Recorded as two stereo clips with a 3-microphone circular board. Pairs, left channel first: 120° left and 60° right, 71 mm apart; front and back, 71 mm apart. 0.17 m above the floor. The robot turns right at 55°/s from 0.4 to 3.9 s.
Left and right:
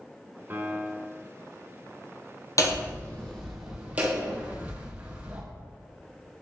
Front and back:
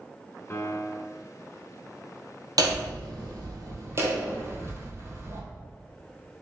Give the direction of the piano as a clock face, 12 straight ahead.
1 o'clock.